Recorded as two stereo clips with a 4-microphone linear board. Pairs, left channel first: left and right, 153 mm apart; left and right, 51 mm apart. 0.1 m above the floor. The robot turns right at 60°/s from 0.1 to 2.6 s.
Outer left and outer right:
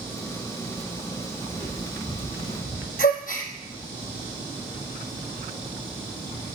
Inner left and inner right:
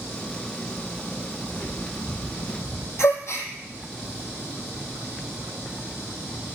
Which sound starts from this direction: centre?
Footsteps, at 1.5 s.